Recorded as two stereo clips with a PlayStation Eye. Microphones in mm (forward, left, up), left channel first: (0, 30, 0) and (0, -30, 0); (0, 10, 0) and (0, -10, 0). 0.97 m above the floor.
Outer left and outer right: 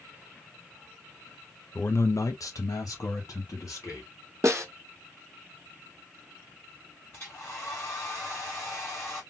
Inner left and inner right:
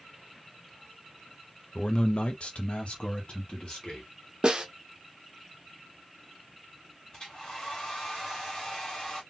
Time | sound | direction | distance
1.8 | a man speaking | 30° left (ahead or behind) | 0.5 m
4.4 | a snare drum | 55° right (ahead or behind) | 1.0 m
7.1 | a hair dryer | 35° left (ahead or behind) | 2 m